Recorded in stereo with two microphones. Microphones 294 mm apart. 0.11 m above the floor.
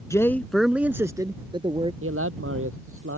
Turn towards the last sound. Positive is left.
turn(degrees=-45)  # may be behind; listen again after turning